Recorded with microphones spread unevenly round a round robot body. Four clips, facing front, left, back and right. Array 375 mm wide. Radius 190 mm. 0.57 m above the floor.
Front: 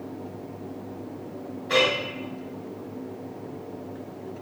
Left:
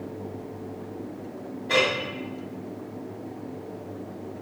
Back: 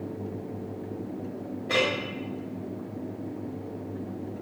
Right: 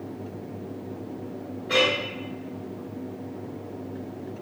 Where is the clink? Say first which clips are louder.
Even, front 4 dB; straight behind, 1.7 m.